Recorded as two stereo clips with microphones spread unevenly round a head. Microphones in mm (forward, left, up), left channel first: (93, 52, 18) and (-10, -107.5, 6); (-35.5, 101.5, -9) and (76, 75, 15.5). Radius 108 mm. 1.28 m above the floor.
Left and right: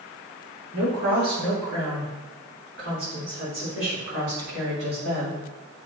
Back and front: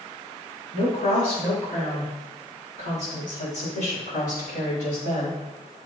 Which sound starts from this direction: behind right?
A woman speaking, at 0.7 s.